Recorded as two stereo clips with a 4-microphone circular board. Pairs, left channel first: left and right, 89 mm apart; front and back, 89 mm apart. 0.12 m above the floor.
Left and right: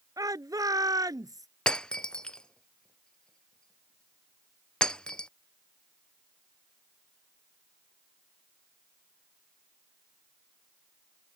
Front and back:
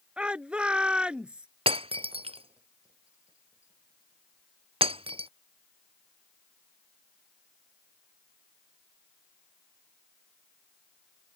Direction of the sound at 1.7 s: 170° left.